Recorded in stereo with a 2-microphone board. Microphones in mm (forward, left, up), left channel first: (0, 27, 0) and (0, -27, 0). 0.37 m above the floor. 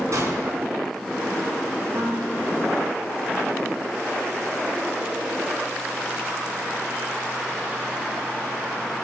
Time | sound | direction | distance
0.1 | a gunshot | 70° right (ahead or behind) | 4 m
1.9 | a piano | 60° right (ahead or behind) | 4 m